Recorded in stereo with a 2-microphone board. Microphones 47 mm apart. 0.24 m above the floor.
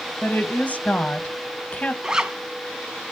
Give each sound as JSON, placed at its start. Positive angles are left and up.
{"t": 0.2, "sound": "a woman speaking", "side_deg": 35, "distance_m": 1.0}
{"t": 2.0, "sound": "a zipper", "side_deg": -15, "distance_m": 0.8}